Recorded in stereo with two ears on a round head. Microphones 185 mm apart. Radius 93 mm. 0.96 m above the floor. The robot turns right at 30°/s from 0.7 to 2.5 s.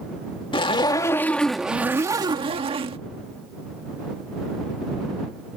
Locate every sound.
0.5 s a zipper: 155° left; by 3.0 s 150° right